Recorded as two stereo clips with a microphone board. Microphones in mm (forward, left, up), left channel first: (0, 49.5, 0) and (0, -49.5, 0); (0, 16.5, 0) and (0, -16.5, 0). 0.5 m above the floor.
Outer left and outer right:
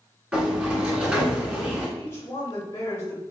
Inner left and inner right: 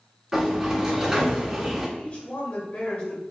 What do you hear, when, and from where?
0.3 s a sliding door: 15° right (ahead or behind), 1.5 m
2.0 s a woman speaking: 30° left (ahead or behind), 1.2 m